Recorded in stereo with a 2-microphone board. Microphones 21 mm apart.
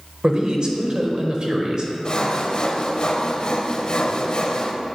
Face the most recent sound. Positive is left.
turn(degrees=45)  # may be behind; listen again after turning